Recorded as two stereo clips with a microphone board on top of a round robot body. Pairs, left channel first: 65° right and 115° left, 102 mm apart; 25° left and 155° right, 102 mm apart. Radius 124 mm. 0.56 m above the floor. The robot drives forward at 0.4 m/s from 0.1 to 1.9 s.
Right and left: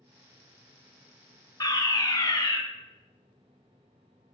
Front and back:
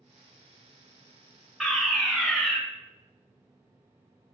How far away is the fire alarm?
About 1.8 m.